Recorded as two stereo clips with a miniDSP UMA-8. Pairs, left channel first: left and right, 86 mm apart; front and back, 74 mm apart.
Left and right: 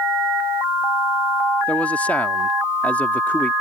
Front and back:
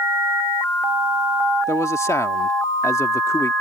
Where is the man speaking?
25° left.